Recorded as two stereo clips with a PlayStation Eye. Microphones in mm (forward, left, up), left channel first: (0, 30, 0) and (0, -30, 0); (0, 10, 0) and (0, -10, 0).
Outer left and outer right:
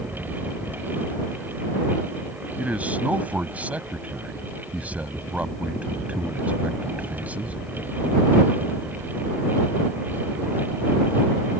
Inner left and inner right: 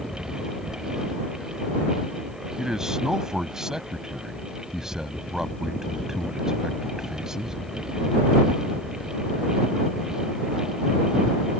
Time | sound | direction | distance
2.6 | a man speaking | 25° right (ahead or behind) | ?